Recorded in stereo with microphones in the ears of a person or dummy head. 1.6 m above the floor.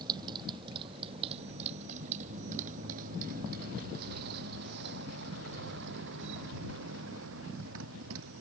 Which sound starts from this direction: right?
A motorcycle, at 0.0 s.